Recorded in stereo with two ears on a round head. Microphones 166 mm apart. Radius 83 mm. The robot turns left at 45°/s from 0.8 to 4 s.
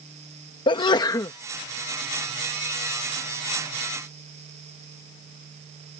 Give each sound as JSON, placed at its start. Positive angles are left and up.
{"t": 0.7, "sound": "a sneeze", "side_deg": 25}